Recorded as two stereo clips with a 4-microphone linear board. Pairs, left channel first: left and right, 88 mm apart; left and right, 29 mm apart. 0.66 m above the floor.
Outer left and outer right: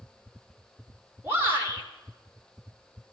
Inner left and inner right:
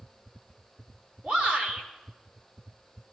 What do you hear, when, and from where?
1.2 s a shout: 25° right (ahead or behind), 4.5 m